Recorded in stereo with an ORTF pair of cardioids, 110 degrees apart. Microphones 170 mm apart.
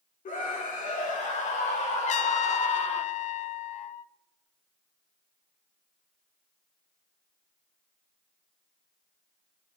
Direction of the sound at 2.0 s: 45° left.